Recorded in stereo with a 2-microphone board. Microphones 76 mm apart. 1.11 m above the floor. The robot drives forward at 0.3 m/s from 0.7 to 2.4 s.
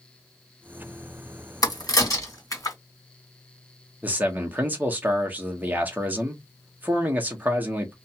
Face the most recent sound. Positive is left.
turn(degrees=-20)  # may be behind; listen again after turning